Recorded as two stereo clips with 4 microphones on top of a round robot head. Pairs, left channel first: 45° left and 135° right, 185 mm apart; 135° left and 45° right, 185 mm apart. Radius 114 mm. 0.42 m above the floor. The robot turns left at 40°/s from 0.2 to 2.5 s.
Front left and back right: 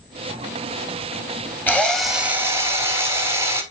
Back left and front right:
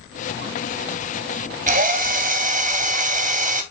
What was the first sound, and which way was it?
A drill, 30° right.